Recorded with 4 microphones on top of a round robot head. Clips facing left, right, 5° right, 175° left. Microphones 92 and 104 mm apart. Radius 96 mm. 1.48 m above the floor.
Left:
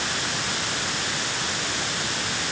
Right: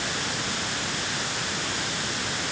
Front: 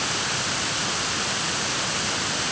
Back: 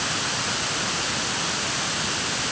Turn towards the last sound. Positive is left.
No sound to turn to.